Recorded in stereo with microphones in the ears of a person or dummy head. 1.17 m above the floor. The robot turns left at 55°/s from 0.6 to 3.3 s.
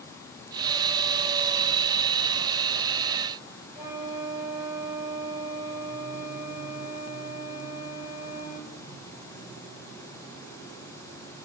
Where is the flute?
15° left (ahead or behind), 5 m.